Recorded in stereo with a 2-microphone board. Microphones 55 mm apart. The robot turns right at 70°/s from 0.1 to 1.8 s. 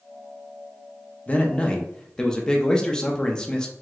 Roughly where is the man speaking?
Left.